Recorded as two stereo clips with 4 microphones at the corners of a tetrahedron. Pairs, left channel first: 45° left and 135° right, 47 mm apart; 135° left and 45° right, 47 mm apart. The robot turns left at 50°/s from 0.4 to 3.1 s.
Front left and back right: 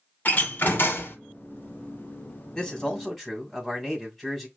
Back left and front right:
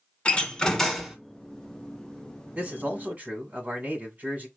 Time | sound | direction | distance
0.2 | a door slam | 80° left | 1.5 m
2.5 | a man speaking | 15° right | 2 m